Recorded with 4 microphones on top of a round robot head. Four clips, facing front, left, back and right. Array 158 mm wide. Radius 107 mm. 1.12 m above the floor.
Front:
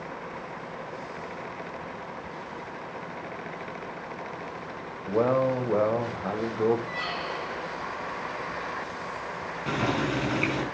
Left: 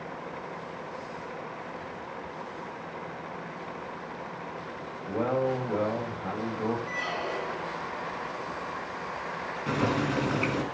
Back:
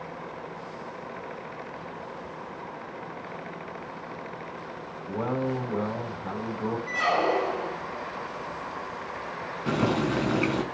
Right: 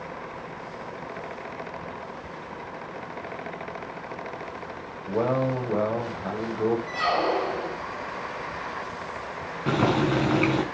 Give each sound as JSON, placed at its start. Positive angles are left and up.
{"t": 5.1, "sound": "a man speaking", "azimuth_deg": -30, "distance_m": 6.0}
{"t": 6.9, "sound": "a squeak", "azimuth_deg": -135, "distance_m": 0.5}
{"t": 9.7, "sound": "boiling", "azimuth_deg": -105, "distance_m": 3.5}